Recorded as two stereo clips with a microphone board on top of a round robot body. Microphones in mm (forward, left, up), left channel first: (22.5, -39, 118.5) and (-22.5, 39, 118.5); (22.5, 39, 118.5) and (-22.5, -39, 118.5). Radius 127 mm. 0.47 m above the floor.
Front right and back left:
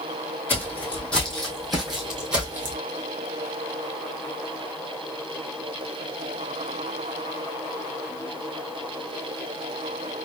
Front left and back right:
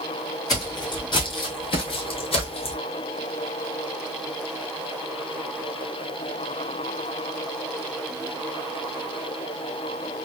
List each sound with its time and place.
0.5 s footsteps: 10° left, 2.0 m; by 2.8 s 55° left, 1.2 m